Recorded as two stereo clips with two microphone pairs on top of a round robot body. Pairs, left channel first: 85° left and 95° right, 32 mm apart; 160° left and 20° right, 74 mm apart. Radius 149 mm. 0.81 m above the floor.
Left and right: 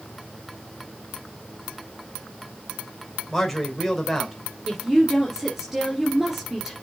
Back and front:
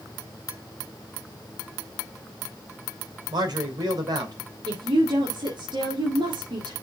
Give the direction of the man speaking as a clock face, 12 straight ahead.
12 o'clock.